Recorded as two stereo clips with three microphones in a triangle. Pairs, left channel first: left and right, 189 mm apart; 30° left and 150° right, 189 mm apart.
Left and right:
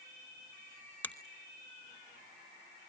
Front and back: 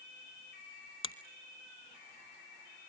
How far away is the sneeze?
No sneeze in this recording.